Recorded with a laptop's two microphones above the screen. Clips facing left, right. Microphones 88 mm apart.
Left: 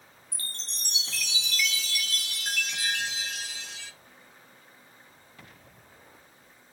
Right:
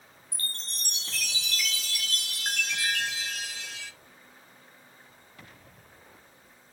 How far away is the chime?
About 2.5 m.